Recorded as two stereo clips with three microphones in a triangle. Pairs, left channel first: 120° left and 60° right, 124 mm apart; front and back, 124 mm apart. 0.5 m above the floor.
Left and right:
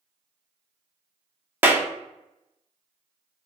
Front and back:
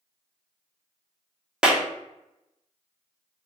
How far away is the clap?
About 0.6 m.